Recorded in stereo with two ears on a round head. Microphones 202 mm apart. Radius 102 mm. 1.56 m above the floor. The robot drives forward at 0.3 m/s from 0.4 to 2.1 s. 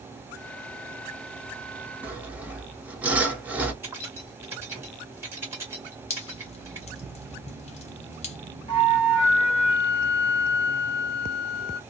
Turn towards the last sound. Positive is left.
turn(degrees=25)  # may be behind; listen again after turning